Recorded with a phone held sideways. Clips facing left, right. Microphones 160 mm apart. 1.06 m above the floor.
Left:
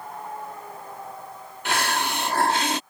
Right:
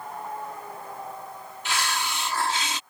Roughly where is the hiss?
Left.